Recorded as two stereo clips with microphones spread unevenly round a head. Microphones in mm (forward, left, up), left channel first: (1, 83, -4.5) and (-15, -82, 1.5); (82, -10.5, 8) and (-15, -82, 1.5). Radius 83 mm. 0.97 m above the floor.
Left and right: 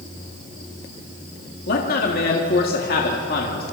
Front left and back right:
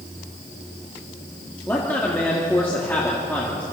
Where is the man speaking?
115° left, 2 m.